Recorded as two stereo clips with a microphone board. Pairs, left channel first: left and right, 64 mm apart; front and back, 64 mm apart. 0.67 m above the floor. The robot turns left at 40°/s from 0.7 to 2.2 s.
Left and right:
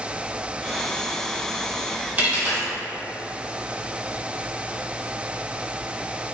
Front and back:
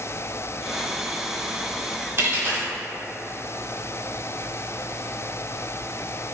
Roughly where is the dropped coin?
Behind right.